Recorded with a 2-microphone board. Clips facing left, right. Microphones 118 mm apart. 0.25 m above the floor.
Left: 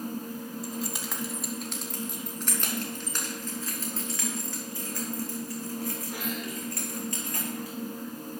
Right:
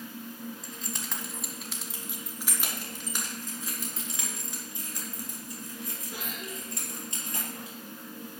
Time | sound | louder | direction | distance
0.6 | keys jangling | left 6 dB | 10° left (ahead or behind) | 1.4 m